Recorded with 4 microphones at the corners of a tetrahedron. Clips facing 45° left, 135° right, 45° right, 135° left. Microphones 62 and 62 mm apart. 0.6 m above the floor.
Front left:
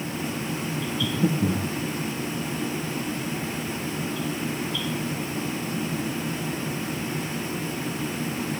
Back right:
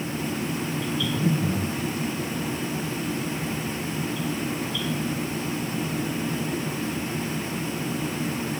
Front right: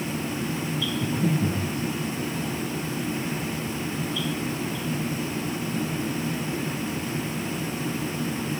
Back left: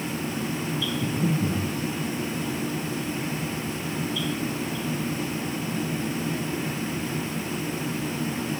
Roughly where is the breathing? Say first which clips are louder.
Front left 2 dB, front right 1 dB; ahead left.